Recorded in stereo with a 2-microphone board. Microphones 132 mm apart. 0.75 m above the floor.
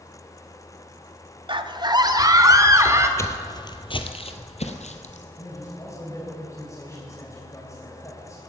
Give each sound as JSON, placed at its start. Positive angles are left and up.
{"t": 1.5, "sound": "a scream", "side_deg": -40, "distance_m": 1.0}
{"t": 3.2, "sound": "footsteps", "side_deg": 20, "distance_m": 1.1}
{"t": 5.4, "sound": "a man speaking", "side_deg": 20, "distance_m": 3.5}